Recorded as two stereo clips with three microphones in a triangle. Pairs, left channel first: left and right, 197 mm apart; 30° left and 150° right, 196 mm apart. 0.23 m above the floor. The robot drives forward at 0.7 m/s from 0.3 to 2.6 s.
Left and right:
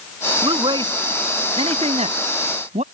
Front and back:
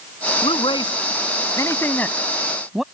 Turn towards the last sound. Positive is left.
turn(degrees=-60)